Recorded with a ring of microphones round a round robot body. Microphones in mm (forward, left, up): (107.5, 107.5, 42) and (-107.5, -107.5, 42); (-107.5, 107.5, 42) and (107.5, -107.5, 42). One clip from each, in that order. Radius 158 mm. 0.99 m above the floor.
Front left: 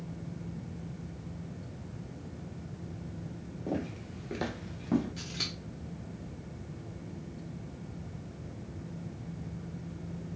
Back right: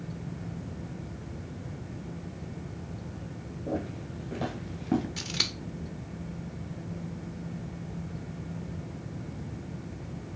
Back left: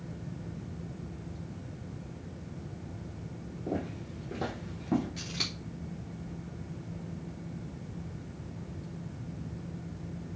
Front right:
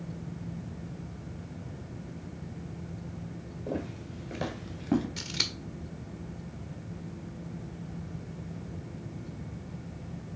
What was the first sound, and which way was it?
Footsteps, 25° left.